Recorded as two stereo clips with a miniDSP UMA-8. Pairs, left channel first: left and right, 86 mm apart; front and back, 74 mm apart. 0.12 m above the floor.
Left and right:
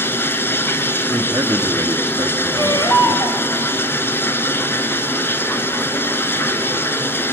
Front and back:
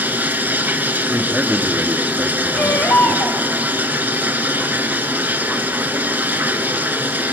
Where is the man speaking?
105° right, 2.5 m.